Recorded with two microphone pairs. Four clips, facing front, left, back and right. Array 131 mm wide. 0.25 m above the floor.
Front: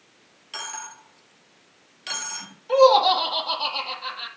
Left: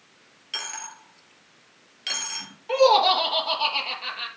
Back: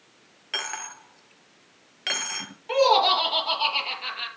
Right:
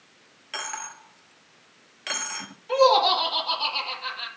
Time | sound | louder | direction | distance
0.5 | a dropped coin | right 3 dB, back 1 dB | 170° right | 1.3 m
2.7 | laughter | left 1 dB, front 4 dB | 140° left | 5.5 m